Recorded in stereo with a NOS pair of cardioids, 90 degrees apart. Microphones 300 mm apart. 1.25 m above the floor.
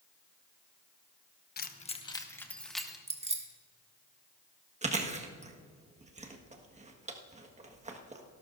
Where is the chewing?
20° right, 1.5 m.